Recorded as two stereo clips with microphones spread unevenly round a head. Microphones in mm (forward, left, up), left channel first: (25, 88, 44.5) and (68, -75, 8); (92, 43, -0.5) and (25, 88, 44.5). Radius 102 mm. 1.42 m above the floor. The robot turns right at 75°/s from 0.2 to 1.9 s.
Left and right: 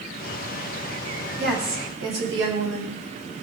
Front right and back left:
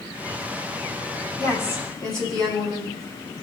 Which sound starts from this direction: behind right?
A woman speaking, at 1.4 s.